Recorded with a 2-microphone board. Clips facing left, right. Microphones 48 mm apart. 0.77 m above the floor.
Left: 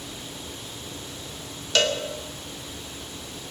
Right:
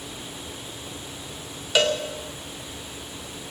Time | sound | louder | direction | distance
1.8 | a cowbell | right 1 dB | 10° right (ahead or behind) | 2.5 m